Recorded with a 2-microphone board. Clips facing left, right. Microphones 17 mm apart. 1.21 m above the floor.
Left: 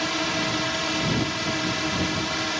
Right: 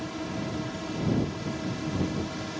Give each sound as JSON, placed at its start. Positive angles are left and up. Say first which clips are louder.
{"t": 0.0, "sound": "a drone", "louder": "left 9 dB", "side_deg": 65}